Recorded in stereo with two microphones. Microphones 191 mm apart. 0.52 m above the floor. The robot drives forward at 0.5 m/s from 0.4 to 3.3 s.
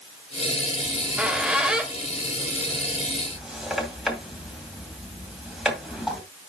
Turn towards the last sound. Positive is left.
turn(degrees=0)  # may be behind; listen again after turning